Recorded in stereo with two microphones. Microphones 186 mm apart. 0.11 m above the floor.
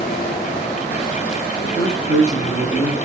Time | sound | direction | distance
1.6 | a man speaking | 20° left (ahead or behind) | 1.6 m